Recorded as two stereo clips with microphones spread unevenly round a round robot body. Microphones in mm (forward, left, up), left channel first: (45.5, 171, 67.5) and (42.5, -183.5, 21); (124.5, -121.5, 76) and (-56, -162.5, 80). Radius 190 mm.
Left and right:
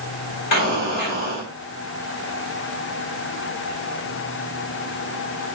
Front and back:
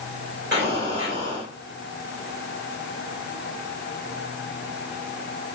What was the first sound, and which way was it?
An explosion, 140° left.